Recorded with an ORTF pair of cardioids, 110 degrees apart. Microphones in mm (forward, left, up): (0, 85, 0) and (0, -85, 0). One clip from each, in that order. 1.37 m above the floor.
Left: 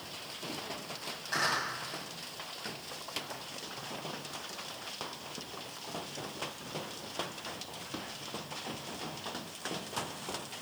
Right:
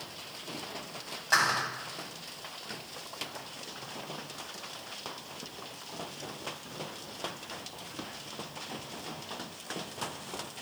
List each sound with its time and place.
1.3 s a clap: 60° right, 8 m